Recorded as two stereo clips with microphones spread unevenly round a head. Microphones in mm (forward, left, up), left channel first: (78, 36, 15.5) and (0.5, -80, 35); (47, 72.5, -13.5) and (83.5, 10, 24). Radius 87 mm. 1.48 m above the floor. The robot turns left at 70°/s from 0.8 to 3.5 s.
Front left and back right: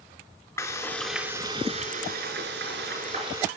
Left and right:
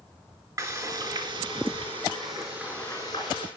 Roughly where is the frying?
Ahead.